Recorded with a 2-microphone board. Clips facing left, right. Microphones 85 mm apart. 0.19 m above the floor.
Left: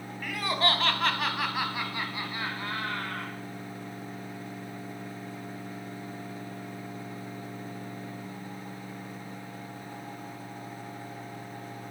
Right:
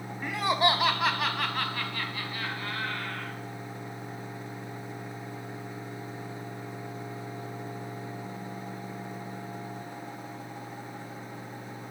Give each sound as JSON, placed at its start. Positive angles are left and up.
{"t": 0.2, "sound": "laughter", "side_deg": -25, "distance_m": 1.0}